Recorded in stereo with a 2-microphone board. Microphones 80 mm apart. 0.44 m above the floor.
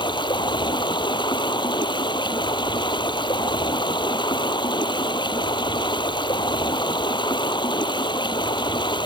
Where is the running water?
75° left (ahead or behind).